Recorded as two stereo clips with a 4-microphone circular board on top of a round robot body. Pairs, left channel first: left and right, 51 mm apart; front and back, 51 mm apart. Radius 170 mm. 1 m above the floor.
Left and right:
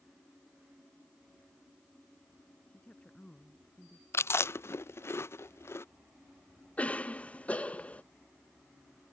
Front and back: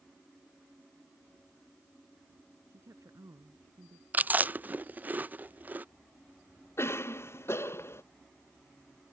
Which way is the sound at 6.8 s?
30° left.